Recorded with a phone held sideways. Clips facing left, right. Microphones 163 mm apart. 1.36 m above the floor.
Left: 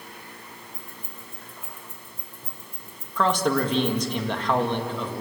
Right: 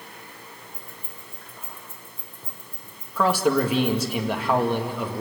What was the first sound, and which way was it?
Keys jangling, 55° left (ahead or behind).